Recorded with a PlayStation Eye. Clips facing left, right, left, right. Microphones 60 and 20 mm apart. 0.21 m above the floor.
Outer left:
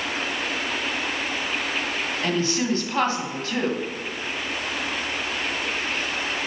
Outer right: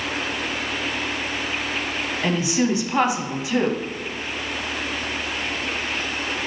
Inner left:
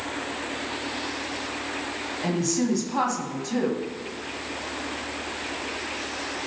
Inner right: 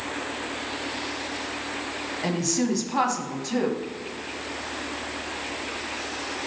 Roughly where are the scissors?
No scissors in this recording.